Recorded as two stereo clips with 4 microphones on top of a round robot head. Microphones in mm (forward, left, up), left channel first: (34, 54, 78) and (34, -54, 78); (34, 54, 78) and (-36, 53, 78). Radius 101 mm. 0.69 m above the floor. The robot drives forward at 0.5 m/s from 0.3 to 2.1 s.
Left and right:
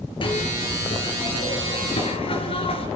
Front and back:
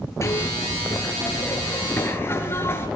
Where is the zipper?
50° left, 5.5 m; by 2.9 s 55° left, 4.5 m.